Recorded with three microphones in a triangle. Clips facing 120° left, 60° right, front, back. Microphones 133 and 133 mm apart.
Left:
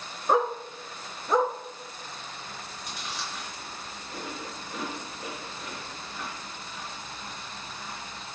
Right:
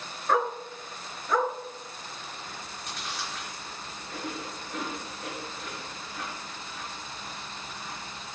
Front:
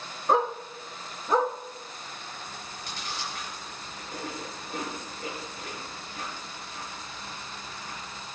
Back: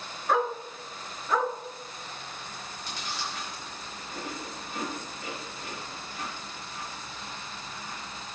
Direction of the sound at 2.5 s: 30° left.